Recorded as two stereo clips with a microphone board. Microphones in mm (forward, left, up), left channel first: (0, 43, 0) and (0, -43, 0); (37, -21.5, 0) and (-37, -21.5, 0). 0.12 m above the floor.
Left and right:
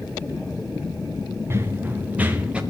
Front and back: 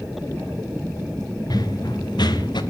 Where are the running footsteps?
30° right, 2.5 m; by 2.6 s 15° right, 3 m.